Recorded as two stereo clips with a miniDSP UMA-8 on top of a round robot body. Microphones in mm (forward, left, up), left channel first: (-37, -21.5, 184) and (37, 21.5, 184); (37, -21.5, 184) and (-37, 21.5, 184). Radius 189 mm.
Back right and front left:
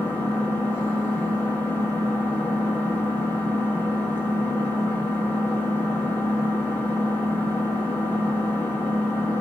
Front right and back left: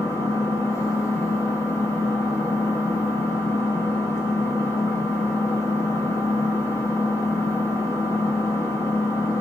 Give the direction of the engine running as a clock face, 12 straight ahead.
3 o'clock.